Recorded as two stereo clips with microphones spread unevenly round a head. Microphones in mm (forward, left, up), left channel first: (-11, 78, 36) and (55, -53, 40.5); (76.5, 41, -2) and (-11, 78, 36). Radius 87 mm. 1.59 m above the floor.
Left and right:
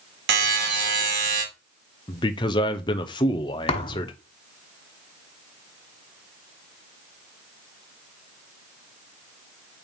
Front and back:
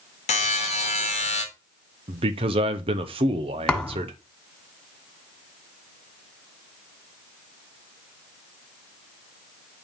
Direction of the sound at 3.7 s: 80° left.